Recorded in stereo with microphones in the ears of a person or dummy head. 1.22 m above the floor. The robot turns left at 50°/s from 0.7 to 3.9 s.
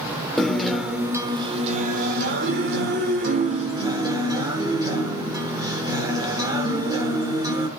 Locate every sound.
0.4 s a guitar: 5° left, 1.2 m; by 7.7 s 155° right, 1.2 m